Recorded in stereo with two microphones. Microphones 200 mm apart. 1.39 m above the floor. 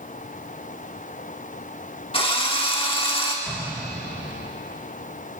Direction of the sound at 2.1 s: 30° left (ahead or behind).